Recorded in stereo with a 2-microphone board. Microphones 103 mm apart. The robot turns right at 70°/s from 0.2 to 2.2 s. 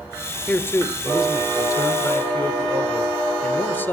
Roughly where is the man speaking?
Ahead left.